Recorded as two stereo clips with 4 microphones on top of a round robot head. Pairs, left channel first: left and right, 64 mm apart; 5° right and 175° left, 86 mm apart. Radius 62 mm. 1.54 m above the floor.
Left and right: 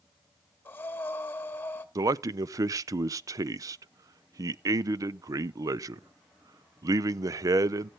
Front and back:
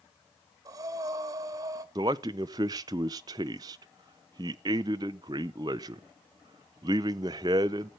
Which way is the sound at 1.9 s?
125° right.